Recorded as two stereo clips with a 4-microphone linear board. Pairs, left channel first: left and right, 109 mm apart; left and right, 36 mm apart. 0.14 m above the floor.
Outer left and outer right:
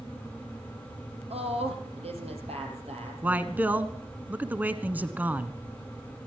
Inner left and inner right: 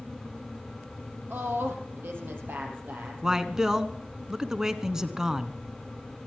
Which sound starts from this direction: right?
A woman speaking, at 1.3 s.